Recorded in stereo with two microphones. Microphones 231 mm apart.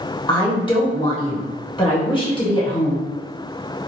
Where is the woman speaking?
20° left (ahead or behind), 1.1 m.